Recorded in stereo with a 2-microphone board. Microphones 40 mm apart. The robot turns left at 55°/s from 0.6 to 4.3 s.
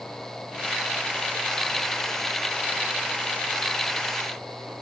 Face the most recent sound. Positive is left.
No sound to turn to.